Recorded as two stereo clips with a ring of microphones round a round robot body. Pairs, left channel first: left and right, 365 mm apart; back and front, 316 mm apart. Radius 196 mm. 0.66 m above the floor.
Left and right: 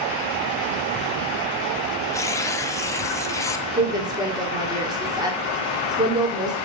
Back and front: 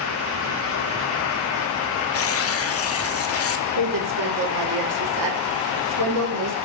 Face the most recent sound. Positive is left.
turn(degrees=-10)